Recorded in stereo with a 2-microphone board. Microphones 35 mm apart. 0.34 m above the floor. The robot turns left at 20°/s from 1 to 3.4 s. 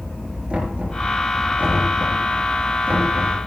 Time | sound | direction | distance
0.5 | knocking | 35° right (ahead or behind) | 4.5 m